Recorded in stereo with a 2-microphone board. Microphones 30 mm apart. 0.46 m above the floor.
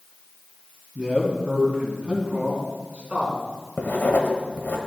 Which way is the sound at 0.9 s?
30° right (ahead or behind).